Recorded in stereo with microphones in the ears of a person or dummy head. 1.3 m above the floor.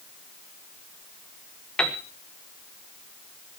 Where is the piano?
5° left (ahead or behind), 1.6 m.